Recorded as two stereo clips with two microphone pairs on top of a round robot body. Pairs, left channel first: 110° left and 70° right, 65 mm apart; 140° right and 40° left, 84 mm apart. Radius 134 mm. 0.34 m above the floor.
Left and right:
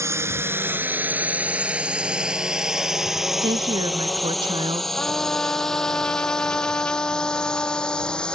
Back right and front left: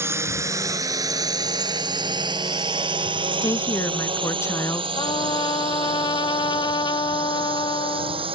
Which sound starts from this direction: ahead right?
A drone, at 0.0 s.